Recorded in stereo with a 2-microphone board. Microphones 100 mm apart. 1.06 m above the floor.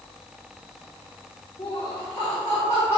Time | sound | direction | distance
1.6 | laughter | 45° left (ahead or behind) | 1.0 m